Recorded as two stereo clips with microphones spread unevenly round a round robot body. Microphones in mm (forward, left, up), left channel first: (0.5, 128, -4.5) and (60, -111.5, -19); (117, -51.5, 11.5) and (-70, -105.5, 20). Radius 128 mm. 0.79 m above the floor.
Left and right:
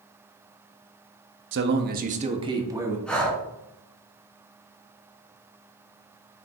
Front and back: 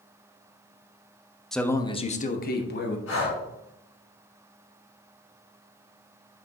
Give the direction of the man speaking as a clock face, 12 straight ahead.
2 o'clock.